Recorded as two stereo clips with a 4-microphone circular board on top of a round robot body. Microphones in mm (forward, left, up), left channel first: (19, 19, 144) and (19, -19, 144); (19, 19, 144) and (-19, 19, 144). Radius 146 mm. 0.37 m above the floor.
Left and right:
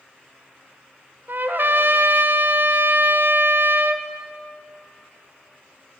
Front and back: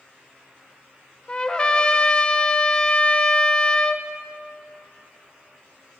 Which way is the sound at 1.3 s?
65° right.